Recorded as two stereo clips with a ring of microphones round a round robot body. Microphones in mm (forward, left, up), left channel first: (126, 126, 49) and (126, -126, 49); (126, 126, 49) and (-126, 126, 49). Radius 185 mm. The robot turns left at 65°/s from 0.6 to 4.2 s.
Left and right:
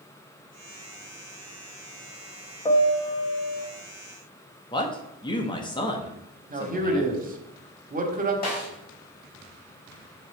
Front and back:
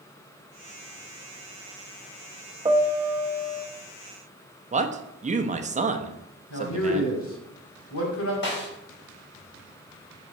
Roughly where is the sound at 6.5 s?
Ahead right.